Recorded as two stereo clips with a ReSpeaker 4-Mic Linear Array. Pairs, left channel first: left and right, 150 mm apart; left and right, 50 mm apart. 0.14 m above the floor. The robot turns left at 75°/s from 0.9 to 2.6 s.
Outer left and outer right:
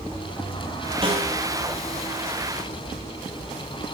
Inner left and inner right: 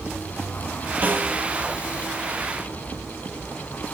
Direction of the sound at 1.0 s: 35° right (ahead or behind).